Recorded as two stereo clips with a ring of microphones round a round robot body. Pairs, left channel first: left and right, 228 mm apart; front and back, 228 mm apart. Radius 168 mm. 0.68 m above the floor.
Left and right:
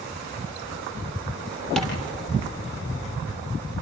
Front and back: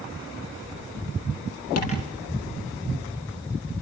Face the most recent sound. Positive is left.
turn(degrees=0)